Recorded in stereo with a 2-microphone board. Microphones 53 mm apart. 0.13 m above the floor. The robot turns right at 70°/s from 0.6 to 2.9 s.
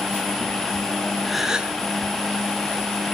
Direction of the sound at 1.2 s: 175° left.